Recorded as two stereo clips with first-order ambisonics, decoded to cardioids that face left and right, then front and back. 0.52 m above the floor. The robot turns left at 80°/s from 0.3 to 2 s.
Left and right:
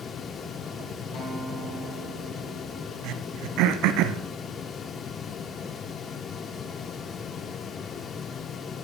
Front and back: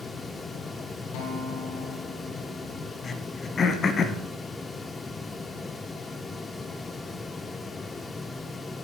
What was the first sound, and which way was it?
A guitar, 25° left.